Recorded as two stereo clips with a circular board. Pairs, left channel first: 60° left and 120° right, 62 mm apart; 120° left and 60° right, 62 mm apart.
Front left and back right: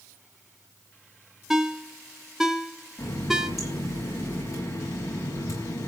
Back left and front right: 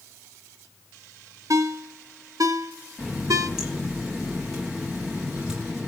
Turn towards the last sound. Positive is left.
turn(degrees=20)